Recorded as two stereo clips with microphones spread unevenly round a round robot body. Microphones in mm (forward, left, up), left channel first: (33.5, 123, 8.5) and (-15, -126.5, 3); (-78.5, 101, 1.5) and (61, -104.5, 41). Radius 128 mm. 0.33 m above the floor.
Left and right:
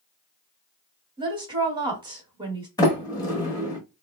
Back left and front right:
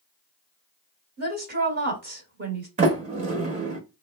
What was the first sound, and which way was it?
A woman speaking, 60° right.